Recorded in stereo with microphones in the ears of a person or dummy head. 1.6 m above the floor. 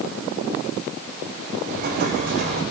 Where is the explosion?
55° right (ahead or behind), 5 m.